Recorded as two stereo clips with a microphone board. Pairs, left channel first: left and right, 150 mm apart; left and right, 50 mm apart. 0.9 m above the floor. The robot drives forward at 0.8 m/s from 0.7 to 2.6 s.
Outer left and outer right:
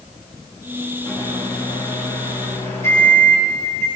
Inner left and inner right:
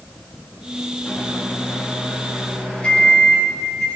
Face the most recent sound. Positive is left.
turn(degrees=20)  # may be behind; listen again after turning